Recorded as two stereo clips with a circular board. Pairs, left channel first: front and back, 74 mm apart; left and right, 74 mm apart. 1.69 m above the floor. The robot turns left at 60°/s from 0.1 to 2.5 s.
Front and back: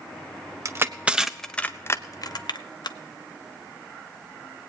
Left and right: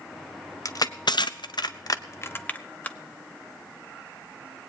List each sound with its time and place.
0.7 s crushing: 130° left, 0.7 m; by 3.0 s 20° left, 0.7 m